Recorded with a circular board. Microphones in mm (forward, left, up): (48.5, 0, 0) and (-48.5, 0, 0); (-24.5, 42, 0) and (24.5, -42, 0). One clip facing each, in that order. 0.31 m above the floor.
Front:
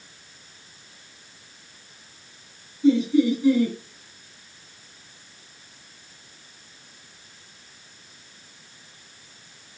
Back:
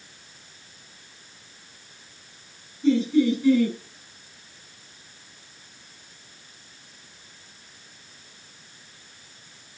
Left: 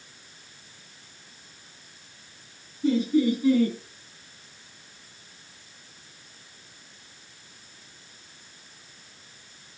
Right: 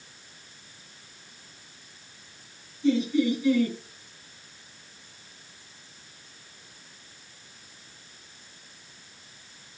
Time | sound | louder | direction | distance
2.8 | laughter | front 1 dB, left 1 dB | 75° left | 4 m